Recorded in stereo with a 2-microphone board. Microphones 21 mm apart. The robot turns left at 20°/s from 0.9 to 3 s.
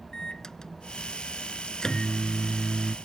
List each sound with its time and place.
0.1 s a microwave: 35° left (ahead or behind); by 3.0 s 15° left (ahead or behind)